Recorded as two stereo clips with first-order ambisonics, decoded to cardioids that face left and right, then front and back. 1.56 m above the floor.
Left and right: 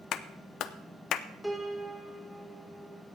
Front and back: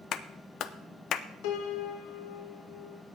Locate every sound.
0.1 s a clap: 45° left, 0.5 m
1.4 s a piano: 5° left, 1.1 m